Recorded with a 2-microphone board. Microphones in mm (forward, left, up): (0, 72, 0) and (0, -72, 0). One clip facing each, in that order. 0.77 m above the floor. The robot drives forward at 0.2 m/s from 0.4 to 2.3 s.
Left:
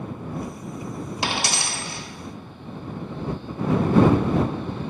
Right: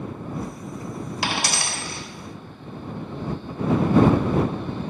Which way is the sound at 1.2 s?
25° left (ahead or behind).